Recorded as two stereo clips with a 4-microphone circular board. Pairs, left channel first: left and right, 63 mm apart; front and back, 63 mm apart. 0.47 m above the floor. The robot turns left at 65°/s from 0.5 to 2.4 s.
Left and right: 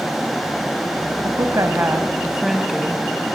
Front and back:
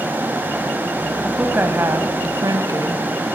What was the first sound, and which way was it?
A woman speaking, 100° right.